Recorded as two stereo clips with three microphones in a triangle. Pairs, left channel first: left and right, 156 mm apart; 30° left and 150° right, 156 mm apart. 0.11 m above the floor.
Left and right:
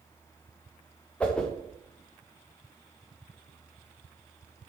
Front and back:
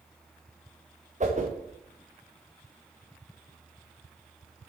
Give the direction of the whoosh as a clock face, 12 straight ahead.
6 o'clock.